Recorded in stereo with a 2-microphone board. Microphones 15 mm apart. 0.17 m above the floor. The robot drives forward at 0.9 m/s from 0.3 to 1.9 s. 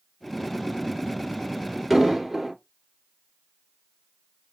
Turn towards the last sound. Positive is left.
turn(degrees=-10)  # may be behind; listen again after turning